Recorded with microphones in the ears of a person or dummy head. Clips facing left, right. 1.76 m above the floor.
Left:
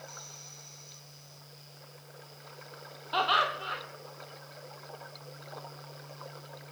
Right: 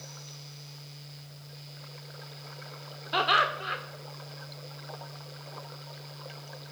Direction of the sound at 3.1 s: 30° right (ahead or behind).